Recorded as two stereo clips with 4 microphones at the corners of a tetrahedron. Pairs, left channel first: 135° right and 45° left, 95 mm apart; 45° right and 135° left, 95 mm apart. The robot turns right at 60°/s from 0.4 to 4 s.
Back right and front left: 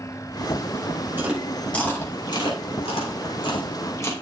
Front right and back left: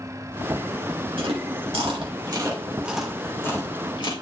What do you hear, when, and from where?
1.2 s chewing: 115° left, 2.5 m; by 4.1 s 80° right, 2.5 m